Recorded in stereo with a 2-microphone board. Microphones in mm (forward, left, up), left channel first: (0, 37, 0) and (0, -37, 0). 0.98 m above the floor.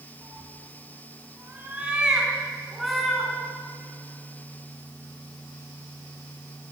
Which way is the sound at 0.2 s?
40° right (ahead or behind).